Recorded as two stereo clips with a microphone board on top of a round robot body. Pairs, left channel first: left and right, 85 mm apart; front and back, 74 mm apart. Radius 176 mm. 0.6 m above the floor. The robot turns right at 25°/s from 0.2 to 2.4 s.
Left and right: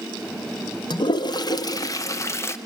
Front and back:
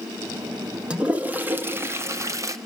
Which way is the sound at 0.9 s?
105° left.